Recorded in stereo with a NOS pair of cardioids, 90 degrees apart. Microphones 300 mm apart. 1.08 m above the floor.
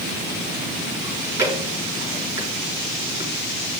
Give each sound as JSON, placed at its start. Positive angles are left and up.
{"t": 1.0, "sound": "chewing", "azimuth_deg": -10, "distance_m": 5.0}